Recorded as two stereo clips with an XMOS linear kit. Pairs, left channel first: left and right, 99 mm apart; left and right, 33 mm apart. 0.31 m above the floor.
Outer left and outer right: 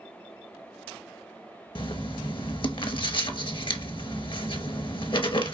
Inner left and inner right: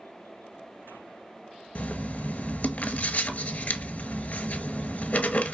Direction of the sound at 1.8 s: 50° left (ahead or behind).